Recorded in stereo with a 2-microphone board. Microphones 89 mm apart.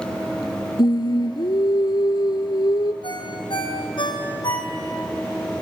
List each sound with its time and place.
0.8 s singing: 55° left (ahead or behind), 0.9 m
3.0 s a ringtone: 65° left (ahead or behind), 3.5 m